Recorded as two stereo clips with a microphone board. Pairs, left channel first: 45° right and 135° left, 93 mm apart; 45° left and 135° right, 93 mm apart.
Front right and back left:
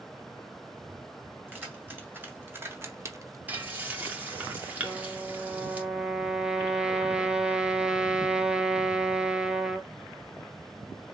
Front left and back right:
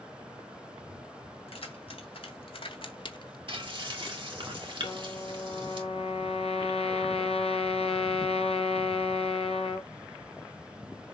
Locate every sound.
1.5 s keys jangling: 65° left, 3 m; by 3.4 s 85° left, 0.6 m
3.5 s frying: 155° right, 1.9 m
4.8 s a trumpet: 55° left, 3.5 m